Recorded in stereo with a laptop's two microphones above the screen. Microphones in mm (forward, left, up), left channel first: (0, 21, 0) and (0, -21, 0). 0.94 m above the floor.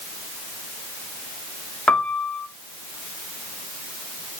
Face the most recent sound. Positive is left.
turn(degrees=35)  # may be behind; listen again after turning